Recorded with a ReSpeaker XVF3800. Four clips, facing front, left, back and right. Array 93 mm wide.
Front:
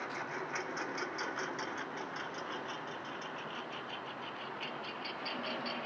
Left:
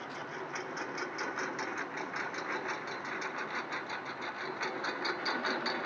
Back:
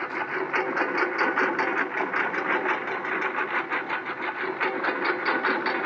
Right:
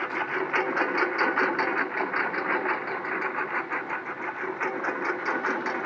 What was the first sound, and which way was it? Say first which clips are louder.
A lawn mower: right 12 dB, back 11 dB; 130° right.